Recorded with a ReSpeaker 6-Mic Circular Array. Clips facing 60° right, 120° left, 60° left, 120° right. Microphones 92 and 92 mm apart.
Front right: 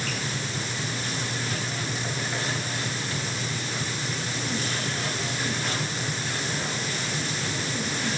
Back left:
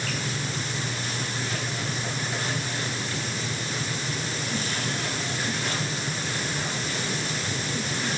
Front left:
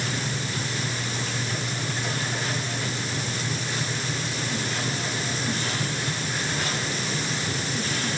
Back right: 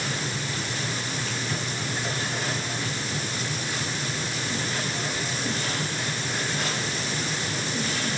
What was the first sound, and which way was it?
Only background noise.